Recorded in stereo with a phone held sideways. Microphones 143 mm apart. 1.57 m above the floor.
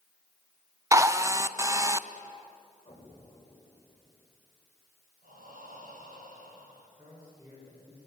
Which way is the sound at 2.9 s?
35° left (ahead or behind).